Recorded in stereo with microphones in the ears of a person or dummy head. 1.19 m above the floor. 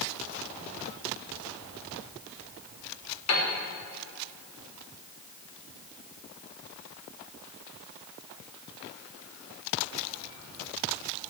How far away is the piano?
About 3 m.